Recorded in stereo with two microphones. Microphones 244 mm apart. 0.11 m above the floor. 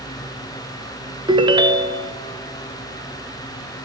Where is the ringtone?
20° right (ahead or behind), 0.5 m.